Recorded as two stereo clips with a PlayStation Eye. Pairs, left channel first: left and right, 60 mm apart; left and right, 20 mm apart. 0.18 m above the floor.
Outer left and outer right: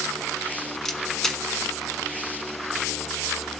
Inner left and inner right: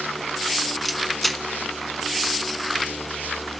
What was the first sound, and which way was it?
A camera shutter, 5° left (ahead or behind).